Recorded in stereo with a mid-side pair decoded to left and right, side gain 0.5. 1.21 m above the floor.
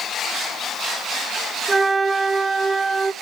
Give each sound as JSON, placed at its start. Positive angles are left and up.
{"t": 1.7, "sound": "a flute", "azimuth_deg": -20, "distance_m": 4.0}